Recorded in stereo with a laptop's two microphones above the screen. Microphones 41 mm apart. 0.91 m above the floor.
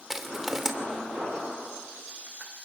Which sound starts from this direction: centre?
Crushing, at 0.1 s.